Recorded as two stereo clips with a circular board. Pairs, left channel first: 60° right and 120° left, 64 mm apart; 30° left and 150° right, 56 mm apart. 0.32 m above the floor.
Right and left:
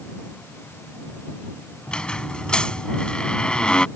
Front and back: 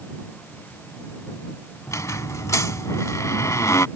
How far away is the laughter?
I don't hear laughter.